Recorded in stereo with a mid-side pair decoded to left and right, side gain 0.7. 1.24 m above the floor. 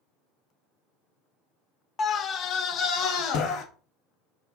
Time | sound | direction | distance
2.0 | a scream | 30° left | 0.7 m